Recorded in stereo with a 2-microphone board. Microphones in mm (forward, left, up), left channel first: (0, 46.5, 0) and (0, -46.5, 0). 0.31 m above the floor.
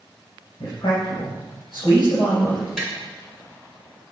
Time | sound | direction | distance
0.6 | a man speaking | 60° left (ahead or behind) | 4.5 m
2.8 | tapping | 5° right (ahead or behind) | 3.5 m